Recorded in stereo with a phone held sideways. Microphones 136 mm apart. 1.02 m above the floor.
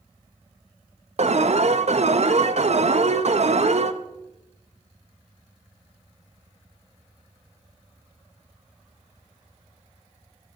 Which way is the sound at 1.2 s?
55° right (ahead or behind).